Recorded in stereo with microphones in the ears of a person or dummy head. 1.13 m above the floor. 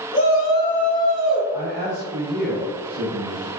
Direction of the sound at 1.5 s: 20° right (ahead or behind).